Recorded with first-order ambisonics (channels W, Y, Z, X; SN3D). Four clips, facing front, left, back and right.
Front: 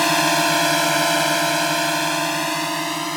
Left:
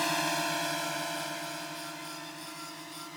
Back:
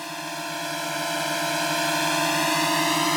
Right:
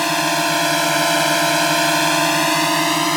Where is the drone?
35° right; by 3.2 s 100° right.